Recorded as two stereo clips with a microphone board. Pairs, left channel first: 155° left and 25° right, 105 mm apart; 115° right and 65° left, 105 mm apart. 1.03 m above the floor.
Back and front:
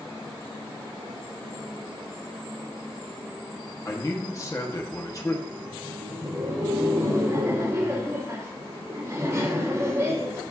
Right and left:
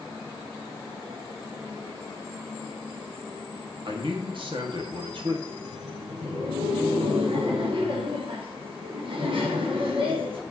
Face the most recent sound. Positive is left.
turn(degrees=40)